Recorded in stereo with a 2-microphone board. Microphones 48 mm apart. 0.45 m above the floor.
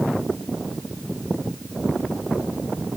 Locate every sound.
Only background noise.